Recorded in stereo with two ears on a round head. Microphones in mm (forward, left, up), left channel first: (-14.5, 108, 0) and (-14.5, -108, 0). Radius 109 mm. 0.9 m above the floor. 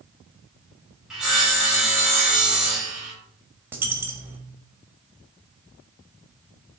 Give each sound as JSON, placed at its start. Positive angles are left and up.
{"t": 1.1, "sound": "sawing", "side_deg": -5, "distance_m": 3.0}
{"t": 3.7, "sound": "a dropped coin", "side_deg": -10, "distance_m": 1.5}